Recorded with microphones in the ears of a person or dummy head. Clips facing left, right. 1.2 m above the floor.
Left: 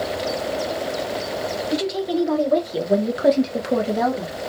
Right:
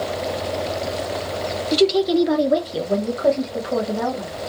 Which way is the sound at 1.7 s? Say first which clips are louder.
Right 7 dB; 45° right (ahead or behind).